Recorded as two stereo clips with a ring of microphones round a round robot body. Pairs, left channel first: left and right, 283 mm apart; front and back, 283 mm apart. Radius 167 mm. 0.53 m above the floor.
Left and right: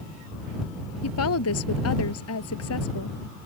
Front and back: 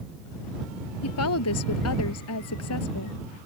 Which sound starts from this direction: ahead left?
A woman speaking, at 1.0 s.